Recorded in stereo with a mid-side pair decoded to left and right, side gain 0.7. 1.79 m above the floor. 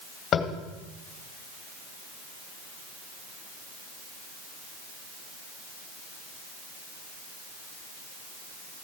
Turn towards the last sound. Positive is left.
turn(degrees=40)